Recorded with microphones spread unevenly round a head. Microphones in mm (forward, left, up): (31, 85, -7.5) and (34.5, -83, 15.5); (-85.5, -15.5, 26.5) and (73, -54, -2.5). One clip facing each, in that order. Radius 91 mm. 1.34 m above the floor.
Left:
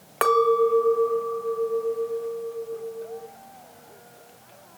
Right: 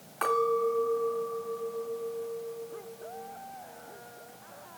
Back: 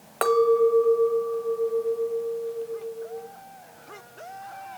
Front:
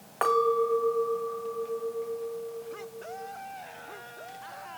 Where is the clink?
115° left, 1.3 m.